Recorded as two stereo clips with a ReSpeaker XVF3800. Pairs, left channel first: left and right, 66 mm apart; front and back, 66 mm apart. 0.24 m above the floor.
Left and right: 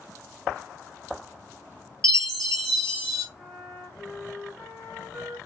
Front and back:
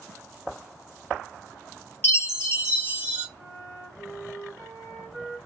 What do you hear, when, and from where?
2.0 s a chime: 55° right, 1.4 m
3.4 s a flute: 160° right, 1.6 m